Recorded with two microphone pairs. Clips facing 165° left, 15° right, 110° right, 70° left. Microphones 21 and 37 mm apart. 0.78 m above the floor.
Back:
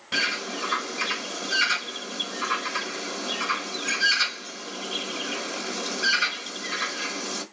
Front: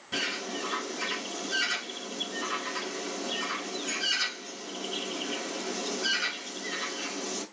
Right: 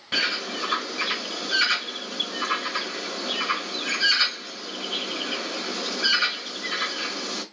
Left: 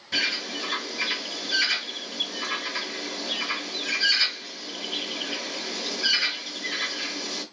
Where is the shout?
No shout in this recording.